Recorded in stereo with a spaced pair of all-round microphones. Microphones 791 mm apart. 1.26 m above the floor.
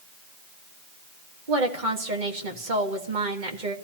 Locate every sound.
1.5 s a woman speaking: 70° right (ahead or behind), 1.8 m